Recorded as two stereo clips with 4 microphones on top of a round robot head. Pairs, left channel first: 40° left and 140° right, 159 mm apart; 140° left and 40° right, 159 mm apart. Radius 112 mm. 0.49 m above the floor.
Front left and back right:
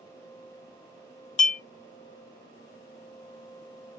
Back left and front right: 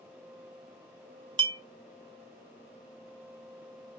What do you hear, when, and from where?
1.4 s a clink: 10° left, 0.5 m